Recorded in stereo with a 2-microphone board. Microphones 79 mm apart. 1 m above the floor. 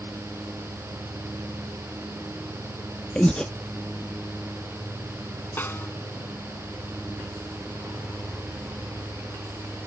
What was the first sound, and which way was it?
Breathing, 10° left (ahead or behind).